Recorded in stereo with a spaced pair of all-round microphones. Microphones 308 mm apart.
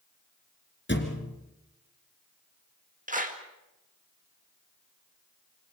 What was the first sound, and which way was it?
A thud, 35° left (ahead or behind).